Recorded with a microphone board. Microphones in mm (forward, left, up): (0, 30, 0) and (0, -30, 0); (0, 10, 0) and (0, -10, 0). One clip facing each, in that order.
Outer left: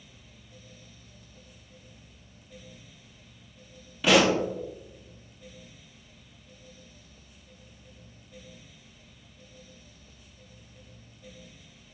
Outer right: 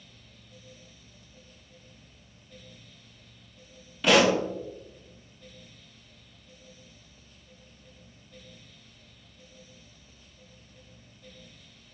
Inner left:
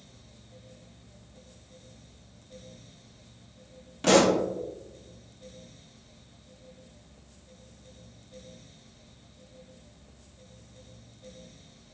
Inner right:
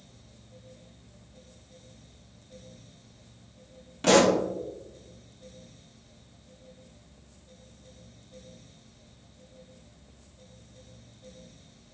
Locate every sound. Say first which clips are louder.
4.0 s a pop: even, even; centre (ahead or behind), 0.8 m